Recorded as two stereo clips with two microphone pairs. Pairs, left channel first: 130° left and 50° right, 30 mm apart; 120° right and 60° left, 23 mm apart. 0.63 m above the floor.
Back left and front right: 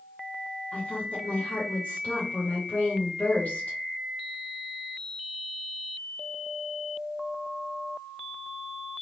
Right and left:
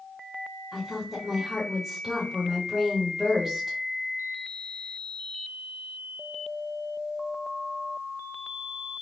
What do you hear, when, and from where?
0.7 s a woman speaking: 145° left, 2.5 m